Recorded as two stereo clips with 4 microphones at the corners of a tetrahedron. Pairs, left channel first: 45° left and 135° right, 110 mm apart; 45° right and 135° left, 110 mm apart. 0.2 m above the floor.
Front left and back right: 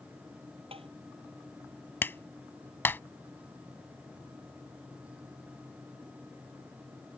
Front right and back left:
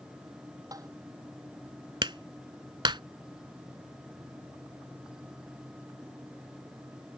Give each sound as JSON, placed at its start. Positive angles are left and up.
{"t": 0.7, "sound": "tapping", "azimuth_deg": -165}
{"t": 2.0, "sound": "a clap", "azimuth_deg": 110}